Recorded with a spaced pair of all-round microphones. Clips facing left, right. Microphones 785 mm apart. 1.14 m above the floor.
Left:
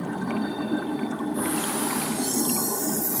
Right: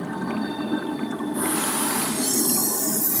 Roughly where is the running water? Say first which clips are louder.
Even; centre.